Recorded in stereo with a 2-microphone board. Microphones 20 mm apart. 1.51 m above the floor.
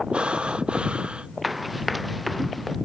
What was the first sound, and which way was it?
Breathing, 55° right (ahead or behind).